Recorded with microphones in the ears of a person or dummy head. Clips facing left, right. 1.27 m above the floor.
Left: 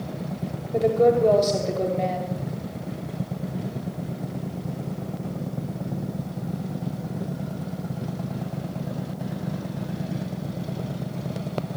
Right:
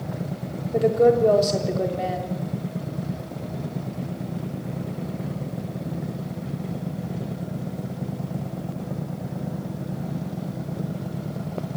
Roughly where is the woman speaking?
Centre.